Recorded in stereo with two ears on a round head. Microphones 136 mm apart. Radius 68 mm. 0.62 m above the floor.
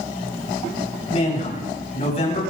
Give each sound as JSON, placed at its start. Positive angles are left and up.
{"t": 1.1, "sound": "a man speaking", "side_deg": 45, "distance_m": 5.0}